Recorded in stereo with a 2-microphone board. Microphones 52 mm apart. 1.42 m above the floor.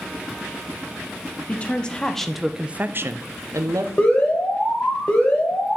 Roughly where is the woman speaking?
Left.